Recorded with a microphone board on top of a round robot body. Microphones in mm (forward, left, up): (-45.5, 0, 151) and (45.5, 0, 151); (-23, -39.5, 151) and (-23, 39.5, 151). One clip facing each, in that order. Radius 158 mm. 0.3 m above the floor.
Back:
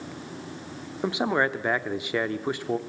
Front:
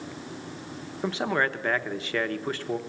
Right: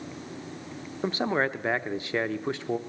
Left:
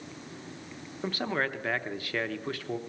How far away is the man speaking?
About 0.9 m.